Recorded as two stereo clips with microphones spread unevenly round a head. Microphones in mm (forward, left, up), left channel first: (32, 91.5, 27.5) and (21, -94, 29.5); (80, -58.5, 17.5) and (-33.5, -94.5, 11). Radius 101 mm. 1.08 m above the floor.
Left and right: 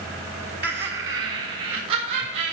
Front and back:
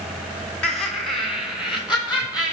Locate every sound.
0.6 s laughter: 65° right, 0.8 m; by 2.5 s 85° right, 2.5 m